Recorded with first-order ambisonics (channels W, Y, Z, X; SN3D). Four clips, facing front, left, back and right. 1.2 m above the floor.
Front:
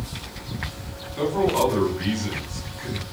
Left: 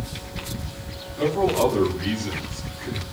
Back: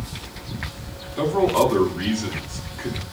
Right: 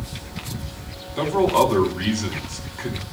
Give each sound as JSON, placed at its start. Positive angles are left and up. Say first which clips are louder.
{"t": 1.2, "sound": "a man speaking", "louder": "right 3 dB, back 2 dB", "azimuth_deg": -100, "distance_m": 9.0}